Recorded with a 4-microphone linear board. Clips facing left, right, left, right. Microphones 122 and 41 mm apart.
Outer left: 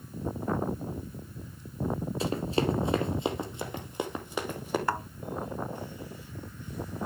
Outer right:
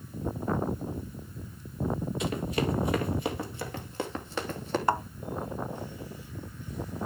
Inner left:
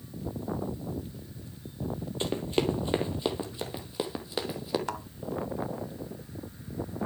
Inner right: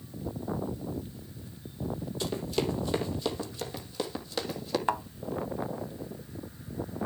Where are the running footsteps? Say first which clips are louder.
Outer left 3 dB, inner left 3 dB; 30° left (ahead or behind), 2.5 m; by 4.8 s 10° left (ahead or behind), 3.5 m.